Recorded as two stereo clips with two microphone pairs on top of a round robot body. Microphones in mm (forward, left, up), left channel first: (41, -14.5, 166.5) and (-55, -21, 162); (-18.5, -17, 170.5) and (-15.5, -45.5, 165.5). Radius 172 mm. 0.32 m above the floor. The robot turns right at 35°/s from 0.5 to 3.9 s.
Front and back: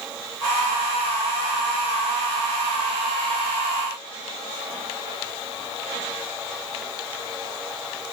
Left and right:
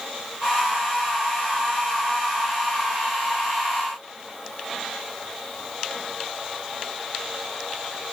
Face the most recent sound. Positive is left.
No sound to turn to.